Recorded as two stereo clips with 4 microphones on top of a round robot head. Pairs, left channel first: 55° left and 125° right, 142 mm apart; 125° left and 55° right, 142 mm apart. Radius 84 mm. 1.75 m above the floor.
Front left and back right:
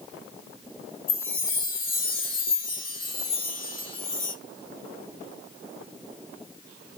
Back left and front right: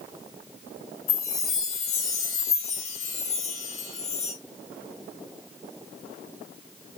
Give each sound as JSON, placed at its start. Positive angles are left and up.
{"t": 1.1, "sound": "a chime", "azimuth_deg": 85, "distance_m": 1.6}